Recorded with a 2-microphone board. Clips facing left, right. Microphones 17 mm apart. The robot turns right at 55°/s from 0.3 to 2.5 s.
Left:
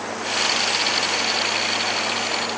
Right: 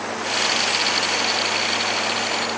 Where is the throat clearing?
No throat clearing in this recording.